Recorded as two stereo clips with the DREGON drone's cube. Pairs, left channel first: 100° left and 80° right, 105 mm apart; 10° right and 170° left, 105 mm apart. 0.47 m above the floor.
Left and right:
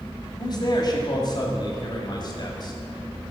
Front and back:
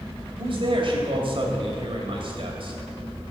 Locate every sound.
0.4 s a man speaking: 140° left, 2.5 m